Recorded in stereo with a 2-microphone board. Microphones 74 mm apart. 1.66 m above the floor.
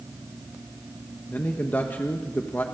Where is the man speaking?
25° left (ahead or behind), 1.4 m.